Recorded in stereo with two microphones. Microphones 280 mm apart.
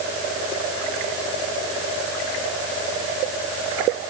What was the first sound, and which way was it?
Only background noise.